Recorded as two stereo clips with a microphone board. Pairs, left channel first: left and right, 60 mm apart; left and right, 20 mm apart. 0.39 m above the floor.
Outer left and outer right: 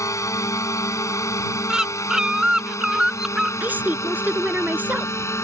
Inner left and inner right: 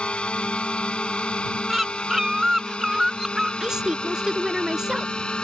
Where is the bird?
10° right (ahead or behind).